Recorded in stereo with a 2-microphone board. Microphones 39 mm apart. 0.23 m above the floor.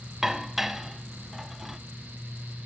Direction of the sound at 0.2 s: 10° right (ahead or behind).